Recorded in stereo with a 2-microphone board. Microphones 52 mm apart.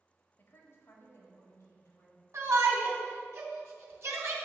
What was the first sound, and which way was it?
A woman speaking, 45° left (ahead or behind).